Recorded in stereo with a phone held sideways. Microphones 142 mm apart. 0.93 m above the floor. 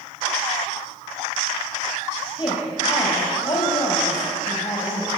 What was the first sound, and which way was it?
A woman speaking, 30° left (ahead or behind).